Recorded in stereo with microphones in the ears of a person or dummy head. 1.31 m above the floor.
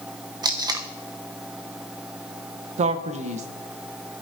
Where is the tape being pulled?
10° right (ahead or behind), 0.8 m.